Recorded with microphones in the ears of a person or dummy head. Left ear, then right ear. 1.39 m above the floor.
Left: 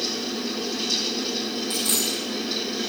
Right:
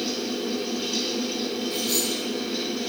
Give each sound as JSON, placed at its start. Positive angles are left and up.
{"t": 0.0, "sound": "a fan", "side_deg": 80, "distance_m": 6.5}
{"t": 1.7, "sound": "a dropped coin", "side_deg": 20, "distance_m": 1.1}